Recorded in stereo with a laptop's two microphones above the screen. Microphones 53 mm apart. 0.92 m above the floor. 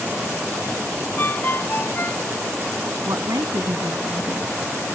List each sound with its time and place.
1.2 s a ringtone: 40° left (ahead or behind)
3.0 s a woman speaking: 75° right (ahead or behind)